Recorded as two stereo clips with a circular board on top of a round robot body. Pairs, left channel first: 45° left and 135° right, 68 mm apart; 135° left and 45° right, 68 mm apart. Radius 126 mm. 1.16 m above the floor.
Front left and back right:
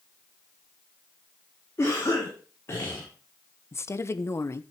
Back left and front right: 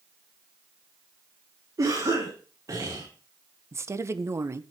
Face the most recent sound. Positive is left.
turn(degrees=0)